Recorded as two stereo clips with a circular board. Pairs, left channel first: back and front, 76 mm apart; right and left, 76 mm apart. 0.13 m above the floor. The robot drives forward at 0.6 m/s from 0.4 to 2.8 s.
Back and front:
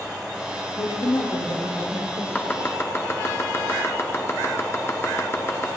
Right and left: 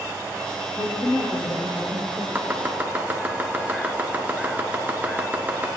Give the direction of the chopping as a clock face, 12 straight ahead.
8 o'clock.